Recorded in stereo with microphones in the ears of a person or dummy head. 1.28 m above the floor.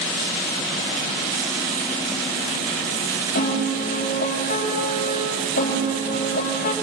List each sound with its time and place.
3.4 s a piano: 50° left (ahead or behind), 5 m